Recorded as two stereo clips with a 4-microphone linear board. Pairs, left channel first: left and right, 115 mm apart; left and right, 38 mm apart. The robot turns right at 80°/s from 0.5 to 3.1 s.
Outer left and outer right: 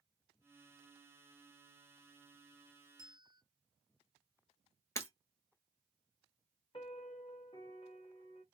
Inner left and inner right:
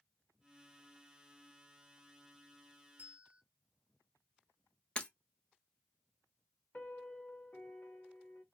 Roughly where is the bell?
Right.